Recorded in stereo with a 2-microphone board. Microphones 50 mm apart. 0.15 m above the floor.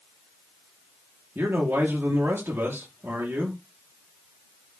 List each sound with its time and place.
1.4 s a man speaking: 60° right (ahead or behind), 3 m